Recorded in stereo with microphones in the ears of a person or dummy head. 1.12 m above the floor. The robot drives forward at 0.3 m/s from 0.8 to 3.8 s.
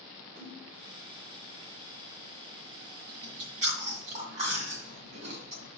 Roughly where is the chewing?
Right.